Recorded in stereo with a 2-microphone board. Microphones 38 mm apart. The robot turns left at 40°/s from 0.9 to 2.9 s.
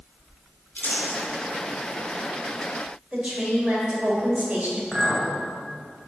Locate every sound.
0.8 s crumpling: 85° left, 4 m; by 1.2 s 75° left (ahead or behind), 4 m
3.1 s a woman speaking: 40° right (ahead or behind), 3.5 m
4.9 s a clink: centre (ahead or behind), 2.5 m